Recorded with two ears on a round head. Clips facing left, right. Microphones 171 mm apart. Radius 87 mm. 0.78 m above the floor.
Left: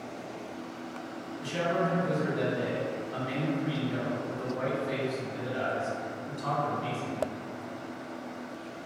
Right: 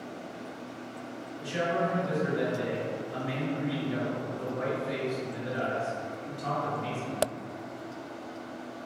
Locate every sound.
1.4 s a man speaking: 60° left (ahead or behind), 1.5 m